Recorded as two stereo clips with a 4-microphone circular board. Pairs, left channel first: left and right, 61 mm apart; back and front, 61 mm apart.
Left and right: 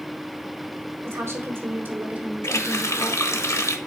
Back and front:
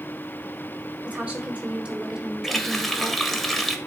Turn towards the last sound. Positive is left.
turn(degrees=95)